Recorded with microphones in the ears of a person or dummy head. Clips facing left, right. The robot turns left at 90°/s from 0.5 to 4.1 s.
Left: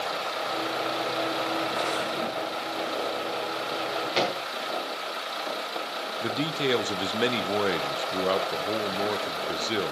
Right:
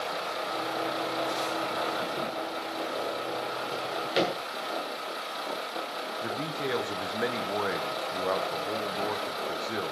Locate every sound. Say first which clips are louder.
3.7 s a drawer: even; 45° right (ahead or behind), 1.3 m; by 4.3 s 15° right (ahead or behind), 1.3 m
6.2 s a man speaking: left 6 dB; 40° left (ahead or behind), 0.6 m